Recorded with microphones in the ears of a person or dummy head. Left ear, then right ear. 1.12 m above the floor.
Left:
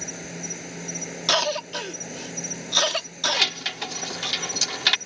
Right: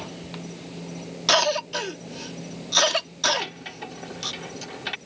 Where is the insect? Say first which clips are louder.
Left 4 dB; 60° left (ahead or behind).